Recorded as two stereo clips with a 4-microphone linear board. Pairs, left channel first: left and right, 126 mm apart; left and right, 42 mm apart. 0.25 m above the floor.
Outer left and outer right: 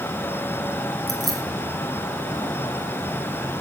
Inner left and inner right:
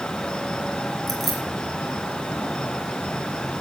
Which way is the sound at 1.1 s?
Centre (ahead or behind).